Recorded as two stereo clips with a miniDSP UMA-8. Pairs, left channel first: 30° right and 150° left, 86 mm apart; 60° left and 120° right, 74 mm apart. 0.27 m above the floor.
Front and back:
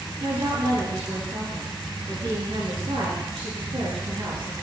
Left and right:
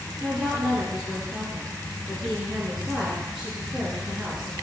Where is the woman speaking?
155° left, 4.5 m.